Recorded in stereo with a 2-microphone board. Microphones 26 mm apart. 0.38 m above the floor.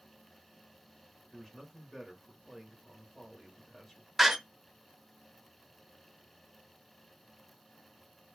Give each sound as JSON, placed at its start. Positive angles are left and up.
{"t": 1.3, "sound": "a man speaking", "side_deg": 15, "distance_m": 1.2}
{"t": 4.2, "sound": "a door slam", "side_deg": -5, "distance_m": 0.8}